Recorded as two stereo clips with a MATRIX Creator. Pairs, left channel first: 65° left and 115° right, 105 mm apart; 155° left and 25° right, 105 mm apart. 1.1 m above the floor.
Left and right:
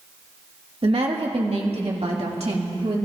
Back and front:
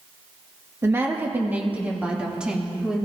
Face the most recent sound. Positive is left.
turn(degrees=-110)